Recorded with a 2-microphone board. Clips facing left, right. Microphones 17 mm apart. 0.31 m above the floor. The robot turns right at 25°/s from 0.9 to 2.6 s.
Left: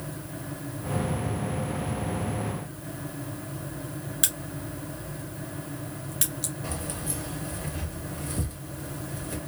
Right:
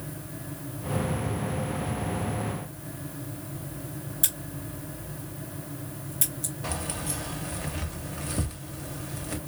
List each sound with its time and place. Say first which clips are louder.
4.2 s a crack: left 3 dB; 45° left (ahead or behind), 1.5 m
6.6 s keys jangling: right 1 dB; 30° right (ahead or behind), 0.8 m